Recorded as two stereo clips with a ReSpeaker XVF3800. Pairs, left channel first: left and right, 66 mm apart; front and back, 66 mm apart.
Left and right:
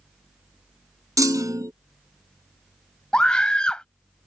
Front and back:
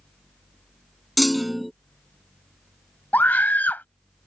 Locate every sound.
1.2 s a clunk: 90° right
3.1 s a scream: 25° left